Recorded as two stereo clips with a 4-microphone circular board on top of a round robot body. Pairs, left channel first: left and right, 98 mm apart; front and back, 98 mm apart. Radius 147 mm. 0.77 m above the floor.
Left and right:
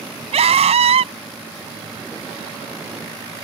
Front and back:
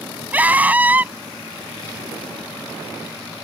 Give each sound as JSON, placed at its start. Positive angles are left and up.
{"t": 0.3, "sound": "a scream", "azimuth_deg": -105}